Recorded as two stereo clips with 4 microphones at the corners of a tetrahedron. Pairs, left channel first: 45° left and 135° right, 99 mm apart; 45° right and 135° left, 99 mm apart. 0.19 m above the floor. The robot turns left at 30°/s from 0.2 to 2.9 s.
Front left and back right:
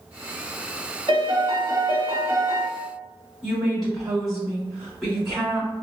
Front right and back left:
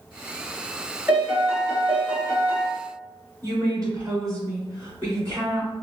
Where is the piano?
160° right, 1.0 m; by 2.7 s 155° left, 1.0 m.